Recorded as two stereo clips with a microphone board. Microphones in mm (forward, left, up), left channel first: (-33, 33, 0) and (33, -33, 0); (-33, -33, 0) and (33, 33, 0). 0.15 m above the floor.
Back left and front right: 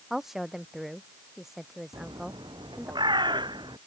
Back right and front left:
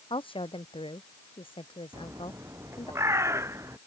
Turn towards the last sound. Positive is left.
turn(degrees=-15)